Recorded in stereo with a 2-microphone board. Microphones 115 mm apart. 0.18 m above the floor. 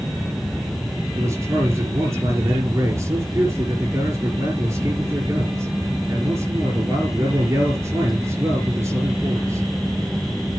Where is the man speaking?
25° right (ahead or behind), 4 m.